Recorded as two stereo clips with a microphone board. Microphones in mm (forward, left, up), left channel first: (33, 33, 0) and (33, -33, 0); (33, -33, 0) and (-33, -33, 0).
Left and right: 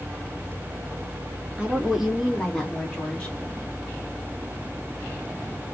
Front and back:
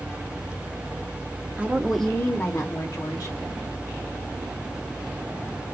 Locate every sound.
1.6 s a woman speaking: 145° right, 0.9 m; by 3.4 s 15° left, 1.8 m